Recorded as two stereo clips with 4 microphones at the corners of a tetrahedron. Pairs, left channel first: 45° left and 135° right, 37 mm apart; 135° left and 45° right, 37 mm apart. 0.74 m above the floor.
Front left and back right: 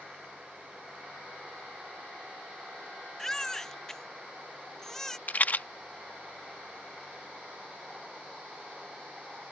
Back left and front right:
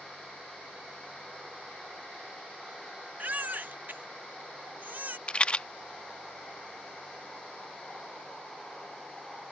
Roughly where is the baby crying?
Ahead right.